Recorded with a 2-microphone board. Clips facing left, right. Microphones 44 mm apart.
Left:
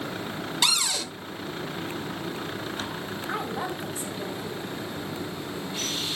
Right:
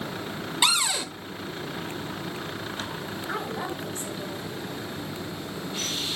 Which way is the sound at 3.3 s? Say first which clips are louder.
Left 1 dB; 10° left (ahead or behind).